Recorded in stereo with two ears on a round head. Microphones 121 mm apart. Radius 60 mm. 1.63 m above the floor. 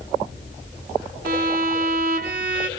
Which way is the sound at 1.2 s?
75° right (ahead or behind).